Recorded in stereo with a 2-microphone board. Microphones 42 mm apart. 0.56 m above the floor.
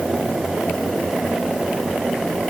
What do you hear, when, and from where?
Only background noise.